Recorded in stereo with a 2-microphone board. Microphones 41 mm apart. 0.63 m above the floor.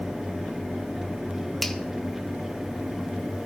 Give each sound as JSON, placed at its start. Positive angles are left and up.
{"t": 1.6, "sound": "a finger snap", "side_deg": 5, "distance_m": 1.1}